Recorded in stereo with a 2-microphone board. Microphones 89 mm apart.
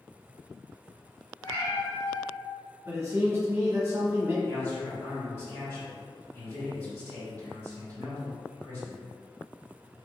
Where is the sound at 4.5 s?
25° left (ahead or behind), 1.9 m.